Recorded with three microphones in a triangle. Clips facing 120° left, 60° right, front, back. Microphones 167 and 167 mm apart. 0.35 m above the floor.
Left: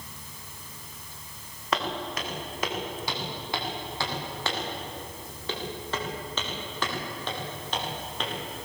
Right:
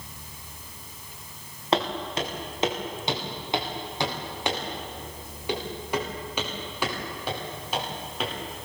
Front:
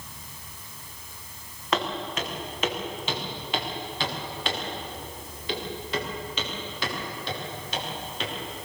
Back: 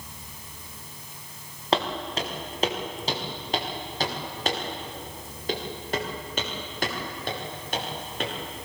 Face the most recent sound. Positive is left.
turn(degrees=-145)